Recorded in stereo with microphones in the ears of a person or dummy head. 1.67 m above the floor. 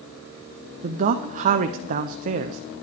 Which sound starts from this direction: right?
A man speaking, at 0.8 s.